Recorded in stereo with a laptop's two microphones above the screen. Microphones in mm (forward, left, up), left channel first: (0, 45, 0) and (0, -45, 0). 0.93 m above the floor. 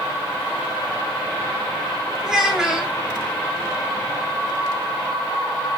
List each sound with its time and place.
2.2 s a child speaking: 5° right (ahead or behind), 0.9 m